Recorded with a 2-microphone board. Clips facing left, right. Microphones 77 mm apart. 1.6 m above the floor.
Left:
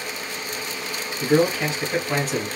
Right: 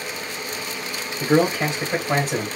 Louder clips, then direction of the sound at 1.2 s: Right 1 dB; 35° right (ahead or behind).